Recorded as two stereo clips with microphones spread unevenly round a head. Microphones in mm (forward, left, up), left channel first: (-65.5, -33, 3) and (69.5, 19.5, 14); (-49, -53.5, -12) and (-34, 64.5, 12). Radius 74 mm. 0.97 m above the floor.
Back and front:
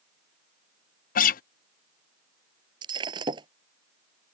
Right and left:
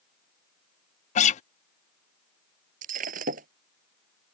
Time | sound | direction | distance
1.1 | a guitar | 125° right | ?
2.8 | breaking glass | 85° left | ?